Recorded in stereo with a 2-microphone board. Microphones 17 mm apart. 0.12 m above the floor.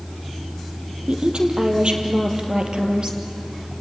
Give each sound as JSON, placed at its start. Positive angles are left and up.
{"t": 1.1, "sound": "a woman speaking", "side_deg": -70, "distance_m": 3.5}